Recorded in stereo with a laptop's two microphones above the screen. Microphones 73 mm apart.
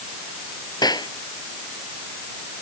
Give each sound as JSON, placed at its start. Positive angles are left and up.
{"t": 0.8, "sound": "a clap", "side_deg": 70}